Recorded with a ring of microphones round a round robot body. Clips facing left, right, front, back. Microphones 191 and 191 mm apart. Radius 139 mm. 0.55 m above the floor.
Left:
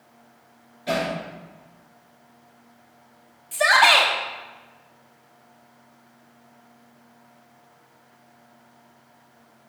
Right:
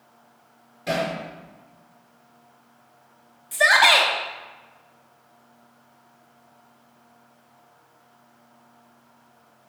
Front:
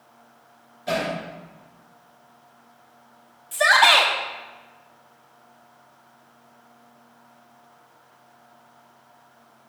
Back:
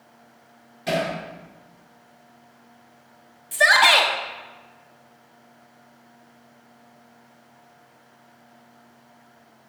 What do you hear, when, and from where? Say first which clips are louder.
0.9 s hammering: even, back 1 dB; 145° right, 5 m
3.5 s a shout: left 1 dB, even; 155° right, 1.0 m